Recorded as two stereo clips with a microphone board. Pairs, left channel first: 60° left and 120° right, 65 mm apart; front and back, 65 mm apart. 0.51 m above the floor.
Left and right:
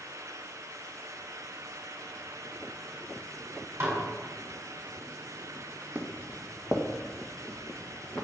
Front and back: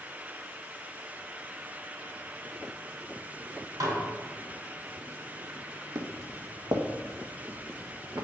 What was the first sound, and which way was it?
Dishes clattering, 170° right.